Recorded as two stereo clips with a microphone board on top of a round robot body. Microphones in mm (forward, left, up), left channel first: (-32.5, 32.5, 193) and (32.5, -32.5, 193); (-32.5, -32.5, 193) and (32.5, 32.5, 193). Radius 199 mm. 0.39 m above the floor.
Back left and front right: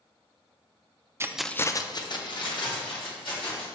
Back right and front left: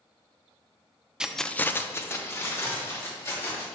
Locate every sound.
1.2 s keys jangling: 30° right, 0.7 m; by 3.6 s 165° left, 3 m